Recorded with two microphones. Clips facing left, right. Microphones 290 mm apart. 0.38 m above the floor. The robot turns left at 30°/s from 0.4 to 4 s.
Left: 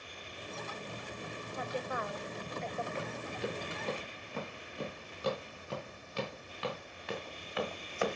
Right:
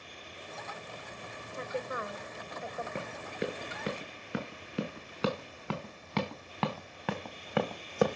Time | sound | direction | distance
1.5 | a woman speaking | 35° right (ahead or behind) | 1.5 m
3.0 | running footsteps | 55° right (ahead or behind) | 5.5 m